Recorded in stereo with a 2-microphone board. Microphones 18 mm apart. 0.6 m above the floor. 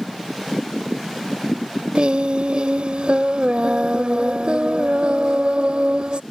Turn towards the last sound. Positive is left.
turn(degrees=-70)  # may be behind; listen again after turning